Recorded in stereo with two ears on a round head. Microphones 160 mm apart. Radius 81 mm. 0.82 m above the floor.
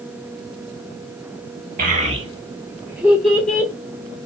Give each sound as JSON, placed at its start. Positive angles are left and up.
{"t": 1.8, "sound": "a child speaking", "side_deg": -50, "distance_m": 1.3}